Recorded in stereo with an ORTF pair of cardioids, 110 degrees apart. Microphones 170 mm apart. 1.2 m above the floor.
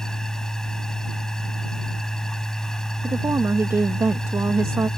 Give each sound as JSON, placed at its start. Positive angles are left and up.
{"t": 0.0, "sound": "a machine running", "azimuth_deg": 5}
{"t": 3.0, "sound": "a woman speaking", "azimuth_deg": -15}